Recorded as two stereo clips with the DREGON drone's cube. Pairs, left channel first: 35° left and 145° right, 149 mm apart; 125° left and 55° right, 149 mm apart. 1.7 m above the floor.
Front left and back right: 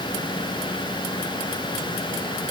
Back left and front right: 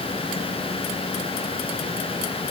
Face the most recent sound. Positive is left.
No sound to turn to.